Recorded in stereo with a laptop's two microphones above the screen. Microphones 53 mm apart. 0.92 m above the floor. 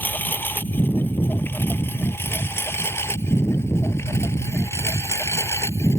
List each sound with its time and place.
0.0 s a lawn mower: 40° left (ahead or behind); by 6.0 s 75° left (ahead or behind)